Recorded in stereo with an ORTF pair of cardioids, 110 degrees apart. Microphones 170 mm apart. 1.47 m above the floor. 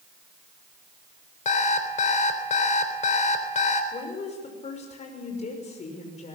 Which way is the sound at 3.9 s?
40° left.